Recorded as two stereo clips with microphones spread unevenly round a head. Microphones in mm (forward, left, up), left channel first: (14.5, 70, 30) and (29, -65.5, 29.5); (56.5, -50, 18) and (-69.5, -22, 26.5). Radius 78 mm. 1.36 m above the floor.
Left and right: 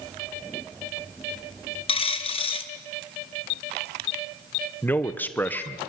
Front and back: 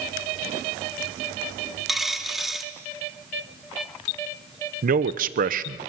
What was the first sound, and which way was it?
A dropped coin, 90° left.